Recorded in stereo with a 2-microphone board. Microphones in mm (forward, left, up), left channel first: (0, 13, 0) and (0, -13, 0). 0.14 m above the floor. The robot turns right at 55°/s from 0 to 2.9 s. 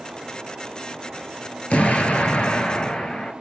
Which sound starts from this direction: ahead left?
An explosion, at 1.7 s.